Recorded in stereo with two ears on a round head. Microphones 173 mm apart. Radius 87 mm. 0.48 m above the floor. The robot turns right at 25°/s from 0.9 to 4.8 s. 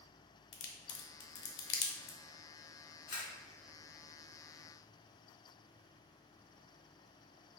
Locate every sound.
0.5 s a crack: 60° left (ahead or behind), 0.6 m; by 2.2 s 45° left (ahead or behind), 0.6 m
3.1 s a camera shutter: 45° left (ahead or behind), 1.4 m; by 3.3 s 50° left (ahead or behind), 1.4 m